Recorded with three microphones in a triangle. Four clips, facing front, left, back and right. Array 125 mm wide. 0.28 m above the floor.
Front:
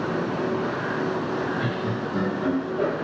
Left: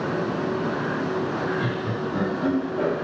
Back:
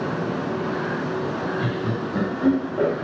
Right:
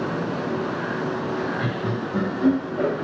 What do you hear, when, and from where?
1.6 s laughter: 105° right, 1.1 m; by 2.9 s 165° right, 1.3 m